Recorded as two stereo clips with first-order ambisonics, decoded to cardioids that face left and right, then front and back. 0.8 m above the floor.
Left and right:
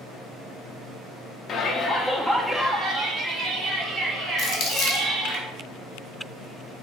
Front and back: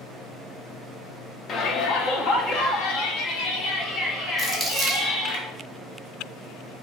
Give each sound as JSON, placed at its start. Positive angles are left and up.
{"t": 1.5, "sound": "a shout", "azimuth_deg": 45, "distance_m": 0.5}
{"t": 4.4, "sound": "crumpling", "azimuth_deg": 85, "distance_m": 1.0}